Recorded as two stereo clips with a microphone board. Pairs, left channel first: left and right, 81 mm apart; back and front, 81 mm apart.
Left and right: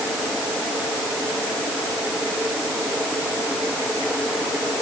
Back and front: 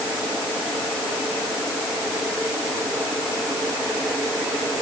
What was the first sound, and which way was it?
Only background noise.